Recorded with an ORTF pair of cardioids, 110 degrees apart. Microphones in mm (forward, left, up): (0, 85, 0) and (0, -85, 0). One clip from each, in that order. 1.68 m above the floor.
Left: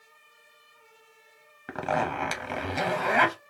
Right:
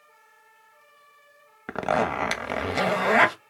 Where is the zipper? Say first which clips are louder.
Right 3 dB; 25° right, 0.7 m.